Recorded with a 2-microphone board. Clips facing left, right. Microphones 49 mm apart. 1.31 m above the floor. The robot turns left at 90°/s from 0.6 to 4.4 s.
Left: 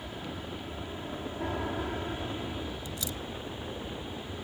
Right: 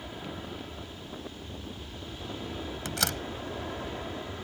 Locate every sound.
0.0 s an aircraft: straight behind; by 4.5 s 160° right
2.9 s a door slam: 80° right; by 3.2 s 65° right (ahead or behind)